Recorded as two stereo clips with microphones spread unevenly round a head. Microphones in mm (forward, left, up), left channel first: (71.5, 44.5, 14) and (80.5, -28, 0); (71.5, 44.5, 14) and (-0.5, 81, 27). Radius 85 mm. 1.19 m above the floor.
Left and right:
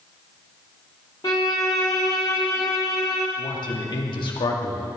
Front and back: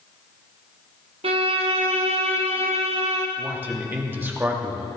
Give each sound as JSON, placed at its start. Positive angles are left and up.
{"t": 1.2, "sound": "a violin", "azimuth_deg": 170, "distance_m": 1.0}
{"t": 3.4, "sound": "a man speaking", "azimuth_deg": 85, "distance_m": 2.0}